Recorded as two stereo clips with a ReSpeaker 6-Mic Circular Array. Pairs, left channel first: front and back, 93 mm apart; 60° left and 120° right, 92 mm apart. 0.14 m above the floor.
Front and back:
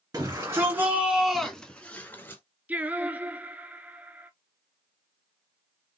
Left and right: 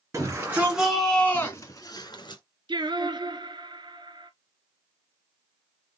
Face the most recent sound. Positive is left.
turn(degrees=-110)